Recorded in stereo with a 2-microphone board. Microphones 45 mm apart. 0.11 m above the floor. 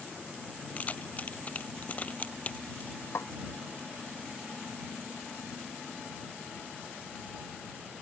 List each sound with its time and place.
0.8 s keys jangling: 35° left (ahead or behind)
3.1 s a snare drum: 75° left (ahead or behind)